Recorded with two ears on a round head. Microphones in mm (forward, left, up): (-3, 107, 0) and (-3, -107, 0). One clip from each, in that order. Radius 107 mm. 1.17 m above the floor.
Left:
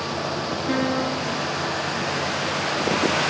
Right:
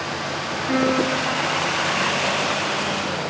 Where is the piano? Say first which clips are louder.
Right 5 dB; 25° right (ahead or behind), 1.7 m.